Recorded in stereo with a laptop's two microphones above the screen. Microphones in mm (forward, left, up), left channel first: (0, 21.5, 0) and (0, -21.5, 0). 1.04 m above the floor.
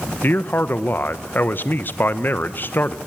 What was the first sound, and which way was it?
A man speaking, 45° left (ahead or behind).